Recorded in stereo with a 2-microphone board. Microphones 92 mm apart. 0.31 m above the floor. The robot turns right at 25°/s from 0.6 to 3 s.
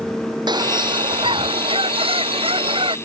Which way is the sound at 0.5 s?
130° right.